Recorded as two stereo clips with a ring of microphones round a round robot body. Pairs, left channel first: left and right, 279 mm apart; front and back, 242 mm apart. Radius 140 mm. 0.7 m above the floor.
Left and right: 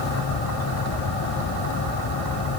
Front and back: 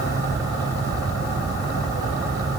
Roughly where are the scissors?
No scissors in this recording.